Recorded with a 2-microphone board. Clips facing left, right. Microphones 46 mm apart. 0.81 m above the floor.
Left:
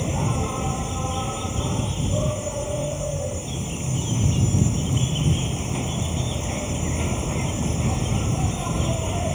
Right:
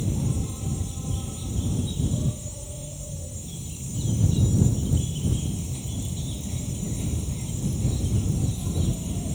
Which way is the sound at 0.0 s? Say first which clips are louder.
Left 4 dB; 60° left (ahead or behind).